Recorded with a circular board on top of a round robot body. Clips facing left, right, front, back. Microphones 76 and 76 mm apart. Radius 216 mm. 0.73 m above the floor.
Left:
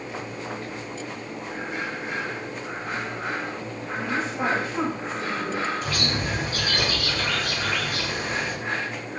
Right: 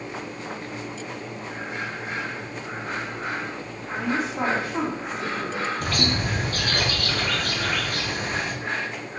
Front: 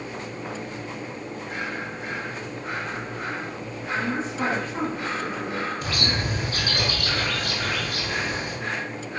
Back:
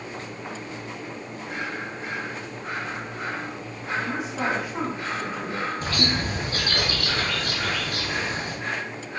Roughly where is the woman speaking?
Right.